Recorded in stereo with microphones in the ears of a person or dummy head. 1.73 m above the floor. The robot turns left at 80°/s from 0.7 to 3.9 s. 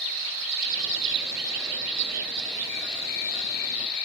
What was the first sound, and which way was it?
An insect, 80° right.